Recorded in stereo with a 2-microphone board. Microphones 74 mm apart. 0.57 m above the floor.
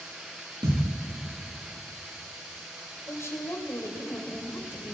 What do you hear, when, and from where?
0.6 s a thud: 80° right, 7.5 m
3.1 s a woman speaking: 40° left (ahead or behind), 2.5 m